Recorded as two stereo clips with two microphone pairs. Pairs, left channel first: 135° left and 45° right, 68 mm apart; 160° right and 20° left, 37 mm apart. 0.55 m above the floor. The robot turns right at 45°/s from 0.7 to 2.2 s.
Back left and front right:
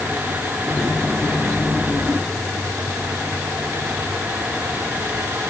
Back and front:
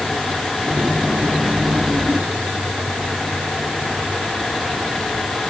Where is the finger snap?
I don't hear a finger snap.